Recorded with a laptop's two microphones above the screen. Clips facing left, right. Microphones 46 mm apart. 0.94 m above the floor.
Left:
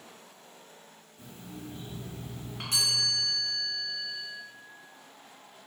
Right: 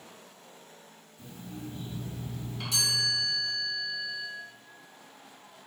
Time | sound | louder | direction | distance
1.2 | an alarm clock | right 2 dB | 60° left (ahead or behind) | 1.0 m
2.7 | a chime | even | 50° left (ahead or behind) | 1.4 m